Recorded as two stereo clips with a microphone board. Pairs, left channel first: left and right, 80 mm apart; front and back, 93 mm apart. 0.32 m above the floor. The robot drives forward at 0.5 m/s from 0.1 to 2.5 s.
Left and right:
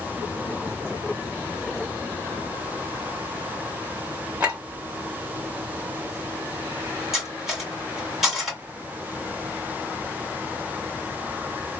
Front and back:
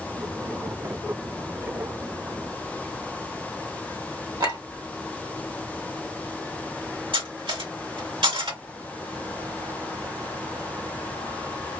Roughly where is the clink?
Behind right.